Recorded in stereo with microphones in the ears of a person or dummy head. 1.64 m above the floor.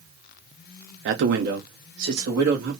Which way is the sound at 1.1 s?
55° right (ahead or behind).